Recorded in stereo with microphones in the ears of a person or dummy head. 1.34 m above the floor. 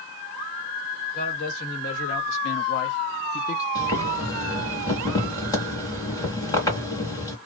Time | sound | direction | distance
1.1 | a man speaking | 55° left (ahead or behind) | 1.6 m
3.8 | boiling | 20° left (ahead or behind) | 1.4 m